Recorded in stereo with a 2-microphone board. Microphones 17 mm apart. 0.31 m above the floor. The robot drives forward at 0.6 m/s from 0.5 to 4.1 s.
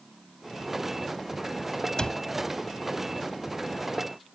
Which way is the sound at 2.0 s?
50° left (ahead or behind).